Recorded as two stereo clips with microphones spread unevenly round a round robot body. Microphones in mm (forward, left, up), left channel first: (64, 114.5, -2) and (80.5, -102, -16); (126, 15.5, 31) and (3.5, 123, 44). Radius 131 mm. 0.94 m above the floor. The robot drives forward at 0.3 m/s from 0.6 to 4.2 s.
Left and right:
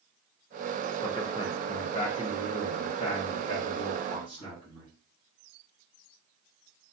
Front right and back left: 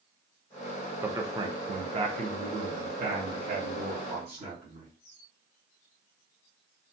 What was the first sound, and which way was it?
A man speaking, 75° left.